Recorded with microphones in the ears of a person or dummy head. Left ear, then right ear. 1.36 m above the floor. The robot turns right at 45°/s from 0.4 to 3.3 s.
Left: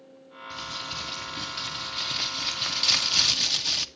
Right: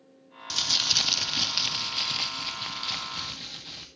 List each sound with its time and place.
0.5 s crumpling: 90° right, 0.6 m; by 3.9 s 35° left, 0.6 m